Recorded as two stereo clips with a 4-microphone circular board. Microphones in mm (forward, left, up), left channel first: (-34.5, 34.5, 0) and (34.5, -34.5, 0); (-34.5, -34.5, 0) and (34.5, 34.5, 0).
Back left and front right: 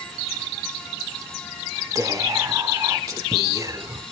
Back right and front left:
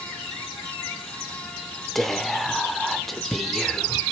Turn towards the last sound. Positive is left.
turn(degrees=-50)